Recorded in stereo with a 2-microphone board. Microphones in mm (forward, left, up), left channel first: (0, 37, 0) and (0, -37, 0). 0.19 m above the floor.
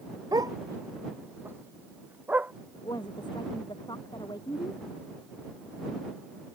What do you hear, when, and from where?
0.3 s a dog barking: 65° right (ahead or behind); by 2.5 s 20° right (ahead or behind)
2.8 s a woman speaking: 85° left